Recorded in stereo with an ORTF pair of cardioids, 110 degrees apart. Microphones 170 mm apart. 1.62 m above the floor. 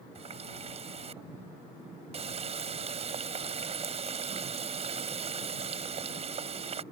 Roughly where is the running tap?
Ahead right.